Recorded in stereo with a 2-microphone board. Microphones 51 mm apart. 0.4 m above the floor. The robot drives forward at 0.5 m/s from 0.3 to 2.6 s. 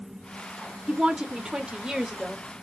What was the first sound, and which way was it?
A woman speaking, 20° right (ahead or behind).